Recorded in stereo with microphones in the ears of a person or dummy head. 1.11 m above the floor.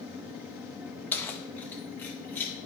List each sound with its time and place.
1.1 s keys jangling: 15° left (ahead or behind), 0.7 m; by 2.5 s 20° left (ahead or behind), 1.5 m